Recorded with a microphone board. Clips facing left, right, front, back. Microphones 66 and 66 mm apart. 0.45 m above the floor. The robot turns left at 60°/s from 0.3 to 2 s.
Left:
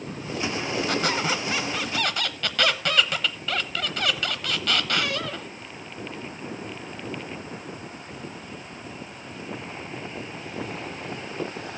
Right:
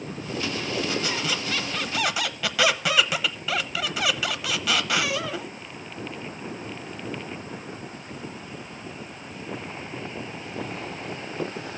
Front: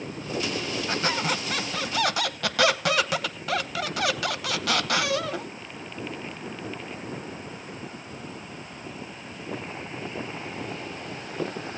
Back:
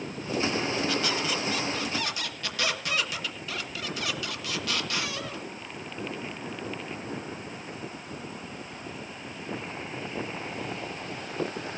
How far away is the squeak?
About 0.8 m.